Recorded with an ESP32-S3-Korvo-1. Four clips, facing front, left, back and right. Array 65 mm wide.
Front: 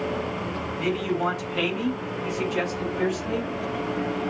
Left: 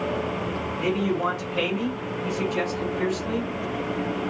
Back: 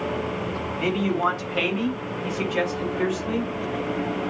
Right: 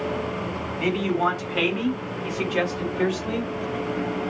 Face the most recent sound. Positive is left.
turn(degrees=-105)